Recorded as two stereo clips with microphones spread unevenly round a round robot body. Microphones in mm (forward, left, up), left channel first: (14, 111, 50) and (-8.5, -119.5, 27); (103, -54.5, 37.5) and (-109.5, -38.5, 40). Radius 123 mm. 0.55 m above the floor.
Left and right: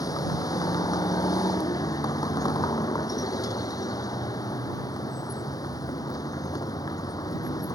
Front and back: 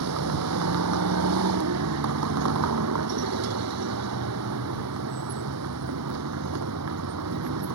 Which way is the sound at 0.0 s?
160° left.